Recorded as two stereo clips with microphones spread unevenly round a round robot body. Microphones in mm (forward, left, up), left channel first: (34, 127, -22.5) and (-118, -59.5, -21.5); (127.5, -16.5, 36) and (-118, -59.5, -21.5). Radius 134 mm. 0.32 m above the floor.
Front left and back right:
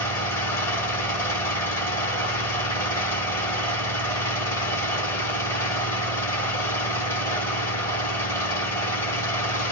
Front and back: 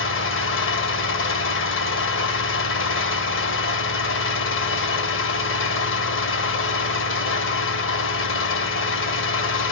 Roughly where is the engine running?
Ahead right.